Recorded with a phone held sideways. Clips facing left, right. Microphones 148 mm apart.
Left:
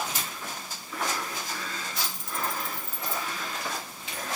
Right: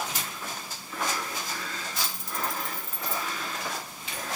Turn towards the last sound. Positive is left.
turn(degrees=-55)  # may be behind; listen again after turning